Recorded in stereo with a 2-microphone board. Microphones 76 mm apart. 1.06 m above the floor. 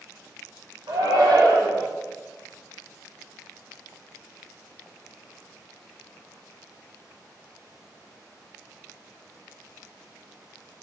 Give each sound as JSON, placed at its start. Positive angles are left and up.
{"t": 0.9, "sound": "a shout", "side_deg": -75, "distance_m": 4.0}